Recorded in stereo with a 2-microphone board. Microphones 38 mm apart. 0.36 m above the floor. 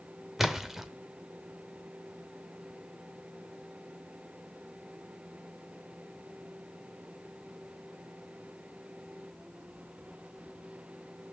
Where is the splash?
10° right (ahead or behind), 0.8 m.